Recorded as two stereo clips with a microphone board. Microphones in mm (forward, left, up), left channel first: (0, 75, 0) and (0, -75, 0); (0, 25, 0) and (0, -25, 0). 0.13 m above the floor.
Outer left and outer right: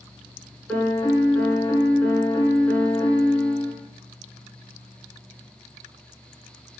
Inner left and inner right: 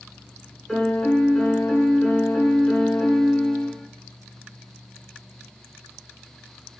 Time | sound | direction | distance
0.7 | a piano | 5° left (ahead or behind) | 0.7 m